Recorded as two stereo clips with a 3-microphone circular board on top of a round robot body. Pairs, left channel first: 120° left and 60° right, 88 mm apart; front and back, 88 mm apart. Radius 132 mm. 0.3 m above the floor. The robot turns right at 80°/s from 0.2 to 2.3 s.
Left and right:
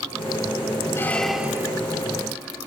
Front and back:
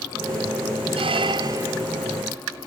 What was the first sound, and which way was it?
A squeak, straight behind.